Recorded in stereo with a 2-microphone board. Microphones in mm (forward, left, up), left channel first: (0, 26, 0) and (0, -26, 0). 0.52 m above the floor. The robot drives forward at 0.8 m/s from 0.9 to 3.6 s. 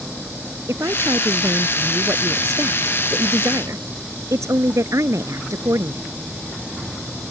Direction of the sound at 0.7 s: 60° right (ahead or behind).